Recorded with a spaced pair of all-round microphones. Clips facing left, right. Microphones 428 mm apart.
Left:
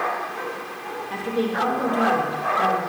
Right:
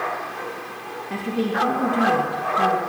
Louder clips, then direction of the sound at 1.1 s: Even; 40° right (ahead or behind).